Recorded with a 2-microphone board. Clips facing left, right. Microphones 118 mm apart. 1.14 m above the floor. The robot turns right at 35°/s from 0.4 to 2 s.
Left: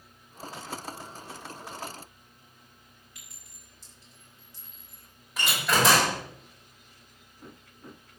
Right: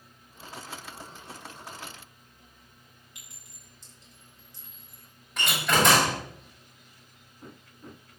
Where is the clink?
20° right (ahead or behind), 6.5 m.